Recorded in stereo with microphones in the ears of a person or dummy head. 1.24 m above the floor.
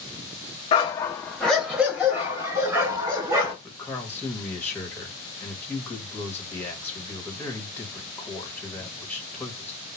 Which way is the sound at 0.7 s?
25° left (ahead or behind).